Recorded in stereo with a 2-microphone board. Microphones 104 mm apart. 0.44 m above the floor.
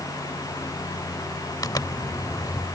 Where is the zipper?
35° left (ahead or behind).